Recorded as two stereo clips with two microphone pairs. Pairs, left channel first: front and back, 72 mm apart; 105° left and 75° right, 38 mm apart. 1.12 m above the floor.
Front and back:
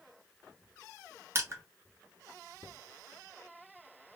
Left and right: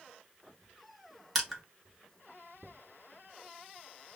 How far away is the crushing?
About 0.9 m.